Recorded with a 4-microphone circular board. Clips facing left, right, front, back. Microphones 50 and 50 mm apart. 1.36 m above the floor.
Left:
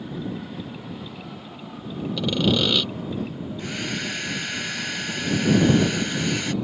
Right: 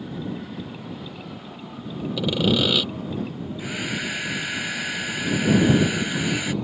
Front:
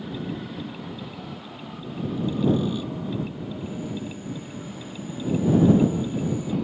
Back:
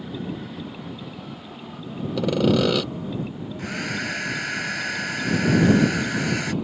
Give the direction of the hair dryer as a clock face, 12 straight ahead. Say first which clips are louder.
Right 1 dB, back 6 dB; 6 o'clock.